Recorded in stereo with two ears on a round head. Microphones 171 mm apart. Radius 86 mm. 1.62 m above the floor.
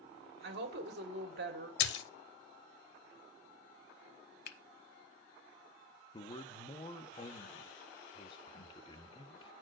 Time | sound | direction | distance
0.4 | a woman speaking | 70° right (ahead or behind) | 2.0 m
1.8 | a splash | 65° left (ahead or behind) | 0.9 m
4.5 | a finger snap | 55° left (ahead or behind) | 0.9 m
6.1 | a man speaking | 25° left (ahead or behind) | 0.8 m